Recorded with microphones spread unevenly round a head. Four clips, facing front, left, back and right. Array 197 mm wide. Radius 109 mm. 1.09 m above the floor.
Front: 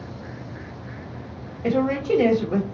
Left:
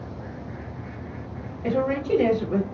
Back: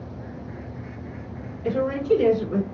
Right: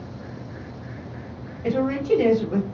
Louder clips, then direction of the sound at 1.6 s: Right 2 dB, even; 10° left.